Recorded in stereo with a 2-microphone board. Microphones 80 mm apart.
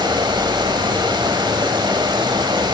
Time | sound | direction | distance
0.0 | running water | 65° right (ahead or behind) | 0.9 m